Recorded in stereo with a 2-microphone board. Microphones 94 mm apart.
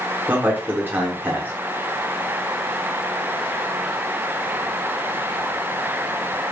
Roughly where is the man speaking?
Right.